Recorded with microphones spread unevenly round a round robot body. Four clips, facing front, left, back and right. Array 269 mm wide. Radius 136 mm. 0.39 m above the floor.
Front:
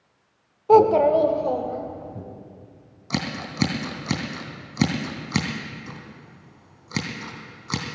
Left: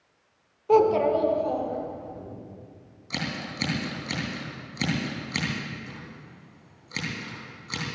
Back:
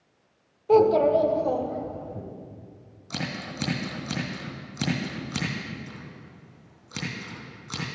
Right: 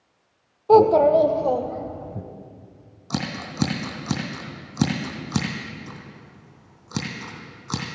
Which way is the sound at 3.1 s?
35° right.